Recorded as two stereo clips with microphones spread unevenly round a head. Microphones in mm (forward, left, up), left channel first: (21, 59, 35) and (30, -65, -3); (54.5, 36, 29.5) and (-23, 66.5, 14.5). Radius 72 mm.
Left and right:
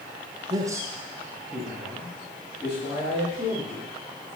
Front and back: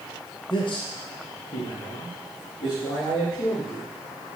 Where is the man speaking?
55° right, 0.9 m; by 3.9 s 10° left, 3.5 m.